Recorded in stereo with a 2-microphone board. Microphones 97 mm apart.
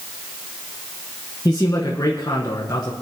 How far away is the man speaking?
About 1.4 m.